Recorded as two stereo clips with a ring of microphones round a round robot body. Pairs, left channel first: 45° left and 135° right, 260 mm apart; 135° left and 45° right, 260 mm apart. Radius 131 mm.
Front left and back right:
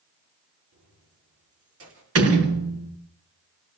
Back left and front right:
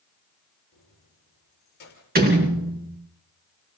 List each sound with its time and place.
0.7 s keys jangling: 170° right, 7.5 m; by 2.0 s 175° right, 6 m
2.1 s a door slam: 100° right, 4 m